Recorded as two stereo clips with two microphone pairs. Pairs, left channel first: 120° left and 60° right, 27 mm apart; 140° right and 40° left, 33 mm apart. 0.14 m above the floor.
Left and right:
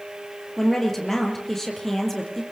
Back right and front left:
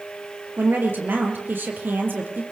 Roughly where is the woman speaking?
Ahead left.